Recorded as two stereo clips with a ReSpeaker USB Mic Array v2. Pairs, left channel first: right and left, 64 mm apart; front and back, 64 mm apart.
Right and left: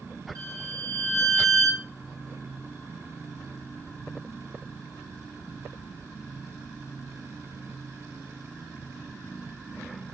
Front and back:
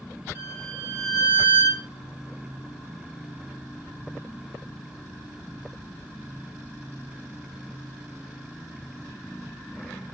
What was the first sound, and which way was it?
A violin, 120° left.